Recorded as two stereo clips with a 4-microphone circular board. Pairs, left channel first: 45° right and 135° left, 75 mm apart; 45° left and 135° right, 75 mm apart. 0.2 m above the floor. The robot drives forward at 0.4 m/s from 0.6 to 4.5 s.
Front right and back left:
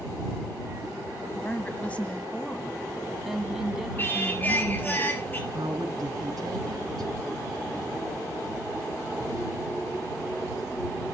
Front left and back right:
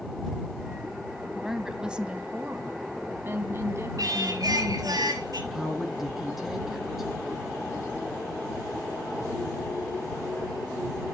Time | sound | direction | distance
1.4 | a woman speaking | 50° right | 1.0 m
4.0 | singing | 105° right | 3 m
5.5 | a woman speaking | 140° left | 2 m